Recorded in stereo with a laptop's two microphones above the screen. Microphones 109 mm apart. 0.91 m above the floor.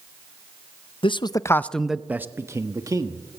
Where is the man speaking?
50° left (ahead or behind), 0.7 m; by 3.2 s 35° right (ahead or behind), 1.7 m.